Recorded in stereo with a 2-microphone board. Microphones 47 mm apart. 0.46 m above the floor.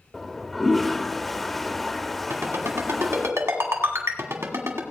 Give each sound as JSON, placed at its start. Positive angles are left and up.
{"t": 0.1, "sound": "a toilet flushing", "side_deg": 5, "distance_m": 0.6}
{"t": 2.3, "sound": "a ringtone", "side_deg": -80, "distance_m": 1.8}